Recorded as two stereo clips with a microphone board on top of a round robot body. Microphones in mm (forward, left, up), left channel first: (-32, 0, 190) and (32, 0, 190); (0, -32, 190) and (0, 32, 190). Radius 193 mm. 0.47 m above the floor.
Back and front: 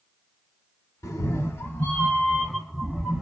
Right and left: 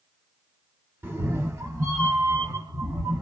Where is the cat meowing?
140° left, 1.2 m; by 3.2 s 75° left, 0.9 m.